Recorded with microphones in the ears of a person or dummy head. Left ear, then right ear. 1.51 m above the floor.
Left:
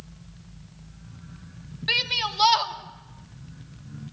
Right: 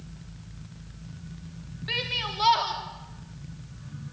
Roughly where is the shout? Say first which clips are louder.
Left 5 dB; left.